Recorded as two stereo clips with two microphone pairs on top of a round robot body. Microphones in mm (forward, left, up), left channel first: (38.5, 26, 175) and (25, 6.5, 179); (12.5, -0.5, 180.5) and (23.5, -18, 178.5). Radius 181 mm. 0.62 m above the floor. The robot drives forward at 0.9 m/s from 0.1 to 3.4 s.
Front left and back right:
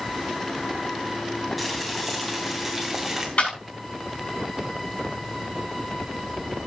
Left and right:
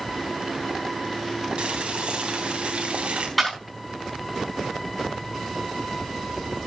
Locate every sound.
1.6 s boiling: 35° right, 4 m; by 3.3 s 50° right, 3 m
3.4 s a clap: 30° left, 7.5 m